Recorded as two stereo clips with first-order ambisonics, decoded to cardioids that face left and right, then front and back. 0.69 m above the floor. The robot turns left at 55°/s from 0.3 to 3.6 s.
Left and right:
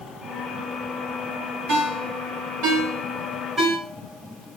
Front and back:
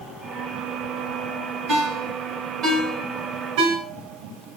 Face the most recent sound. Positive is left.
turn(degrees=-170)